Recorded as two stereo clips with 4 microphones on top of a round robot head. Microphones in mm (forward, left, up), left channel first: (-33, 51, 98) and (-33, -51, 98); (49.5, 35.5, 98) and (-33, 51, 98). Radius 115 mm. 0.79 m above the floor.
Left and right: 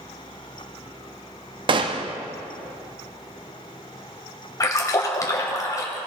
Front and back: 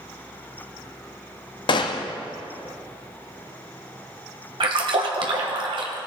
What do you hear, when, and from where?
1.7 s a gunshot: 45° right, 0.6 m
4.6 s a splash: 150° left, 1.2 m